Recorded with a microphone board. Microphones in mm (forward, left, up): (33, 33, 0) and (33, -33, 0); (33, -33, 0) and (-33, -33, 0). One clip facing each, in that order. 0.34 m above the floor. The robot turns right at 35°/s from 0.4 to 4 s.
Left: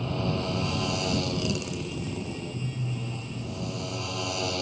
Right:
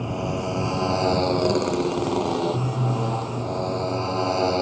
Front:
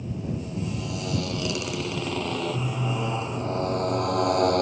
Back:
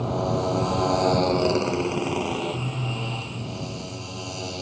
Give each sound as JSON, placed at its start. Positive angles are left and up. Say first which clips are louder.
{"t": 0.0, "sound": "a motorcycle", "louder": "right 3 dB, back 8 dB", "azimuth_deg": -165}